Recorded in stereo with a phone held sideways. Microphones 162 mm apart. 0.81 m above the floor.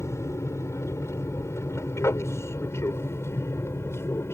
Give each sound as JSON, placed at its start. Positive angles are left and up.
{"t": 0.0, "sound": "an aircraft", "side_deg": 15}